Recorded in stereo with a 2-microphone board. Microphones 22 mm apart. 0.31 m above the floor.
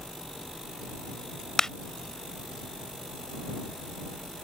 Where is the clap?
25° left (ahead or behind).